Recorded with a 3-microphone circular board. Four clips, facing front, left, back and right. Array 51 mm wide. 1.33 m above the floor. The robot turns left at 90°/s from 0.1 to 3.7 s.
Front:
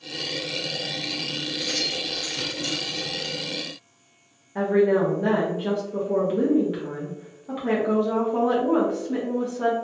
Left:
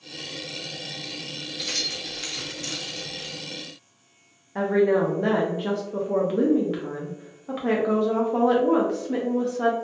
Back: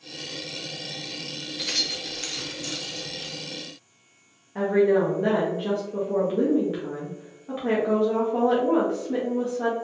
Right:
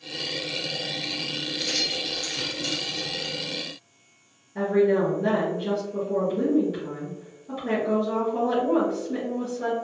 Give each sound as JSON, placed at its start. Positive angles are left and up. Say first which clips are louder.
{"t": 1.6, "sound": "keys jangling", "louder": "right 1 dB, even", "azimuth_deg": -170, "distance_m": 0.8}
{"t": 4.5, "sound": "a woman speaking", "louder": "left 1 dB, even", "azimuth_deg": 80, "distance_m": 0.6}